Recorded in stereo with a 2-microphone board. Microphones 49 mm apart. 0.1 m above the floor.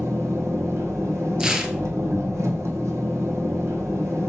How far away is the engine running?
About 1.1 m.